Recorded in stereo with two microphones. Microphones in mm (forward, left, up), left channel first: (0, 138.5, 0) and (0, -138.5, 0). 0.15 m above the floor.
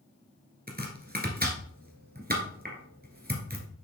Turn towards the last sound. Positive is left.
turn(degrees=-35)  # may be behind; listen again after turning